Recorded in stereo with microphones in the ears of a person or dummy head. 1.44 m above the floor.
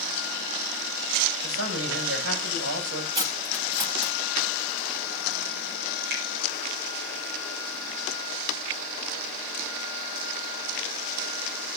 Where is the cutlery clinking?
25° right (ahead or behind), 2 m.